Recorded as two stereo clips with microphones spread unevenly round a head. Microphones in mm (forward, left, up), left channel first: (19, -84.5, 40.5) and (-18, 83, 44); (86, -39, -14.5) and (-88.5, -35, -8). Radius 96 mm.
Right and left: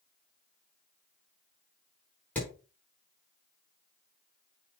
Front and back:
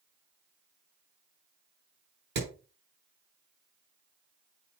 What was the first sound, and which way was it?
Hammering, 160° right.